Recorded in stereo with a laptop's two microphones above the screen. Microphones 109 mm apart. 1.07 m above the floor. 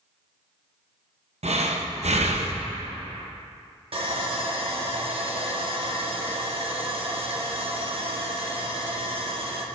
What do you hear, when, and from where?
1.4 s breathing: 80° right, 0.6 m
3.9 s sawing: 60° right (ahead or behind), 0.9 m